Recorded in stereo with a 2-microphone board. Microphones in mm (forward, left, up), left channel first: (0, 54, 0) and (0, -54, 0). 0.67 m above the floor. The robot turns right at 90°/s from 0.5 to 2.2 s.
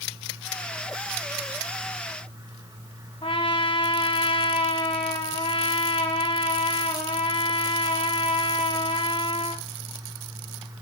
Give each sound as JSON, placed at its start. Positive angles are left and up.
{"t": 3.2, "sound": "a trumpet", "side_deg": 60, "distance_m": 5.5}